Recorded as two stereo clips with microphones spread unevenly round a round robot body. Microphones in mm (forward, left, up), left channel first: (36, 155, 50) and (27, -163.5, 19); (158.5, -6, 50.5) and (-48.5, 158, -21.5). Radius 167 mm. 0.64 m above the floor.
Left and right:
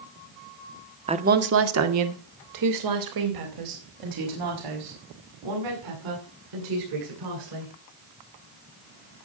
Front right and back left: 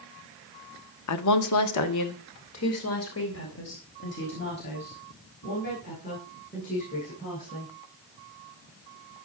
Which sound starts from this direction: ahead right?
A woman speaking, at 1.1 s.